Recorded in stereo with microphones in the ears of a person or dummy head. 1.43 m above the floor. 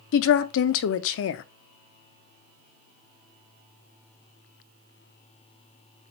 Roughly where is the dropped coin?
No dropped coin in this recording.